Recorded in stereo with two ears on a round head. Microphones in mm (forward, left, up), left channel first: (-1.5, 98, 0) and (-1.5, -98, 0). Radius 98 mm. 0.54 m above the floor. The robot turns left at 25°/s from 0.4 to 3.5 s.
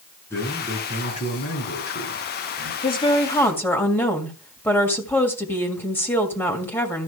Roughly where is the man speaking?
Behind.